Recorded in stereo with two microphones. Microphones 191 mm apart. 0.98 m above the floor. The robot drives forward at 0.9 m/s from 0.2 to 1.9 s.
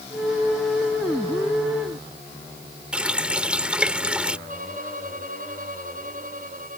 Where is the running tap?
5° right (ahead or behind).